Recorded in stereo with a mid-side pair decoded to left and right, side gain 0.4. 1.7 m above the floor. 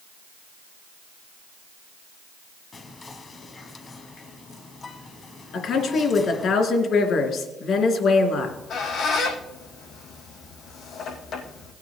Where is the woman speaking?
70° left, 3 m.